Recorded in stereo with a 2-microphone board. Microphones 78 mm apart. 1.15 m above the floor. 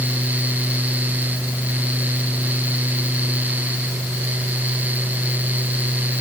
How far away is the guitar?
No guitar in this recording.